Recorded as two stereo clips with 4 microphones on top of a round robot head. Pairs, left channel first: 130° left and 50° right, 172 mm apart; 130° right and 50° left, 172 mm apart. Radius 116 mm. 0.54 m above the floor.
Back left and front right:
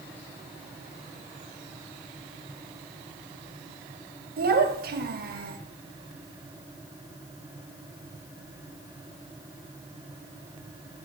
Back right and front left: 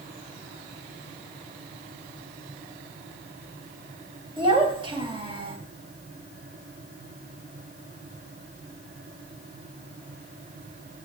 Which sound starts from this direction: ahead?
A child speaking, at 4.4 s.